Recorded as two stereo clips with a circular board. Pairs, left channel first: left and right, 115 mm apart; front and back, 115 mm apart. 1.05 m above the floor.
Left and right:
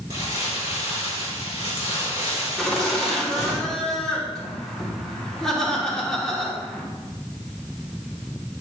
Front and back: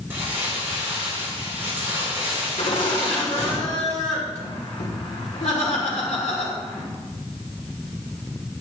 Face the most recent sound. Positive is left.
turn(degrees=5)